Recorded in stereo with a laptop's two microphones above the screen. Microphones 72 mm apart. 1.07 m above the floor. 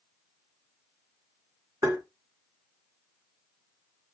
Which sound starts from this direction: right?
Tapping, at 1.8 s.